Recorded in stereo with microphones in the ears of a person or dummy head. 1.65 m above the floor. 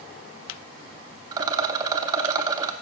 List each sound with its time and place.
1.3 s a rattle: 25° right (ahead or behind), 0.6 m